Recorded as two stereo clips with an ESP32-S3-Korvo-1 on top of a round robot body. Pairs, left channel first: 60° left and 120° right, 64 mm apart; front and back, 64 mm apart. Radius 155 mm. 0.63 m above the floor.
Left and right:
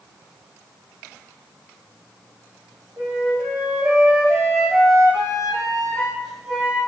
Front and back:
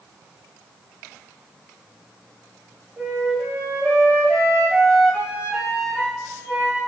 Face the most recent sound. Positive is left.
turn(degrees=-100)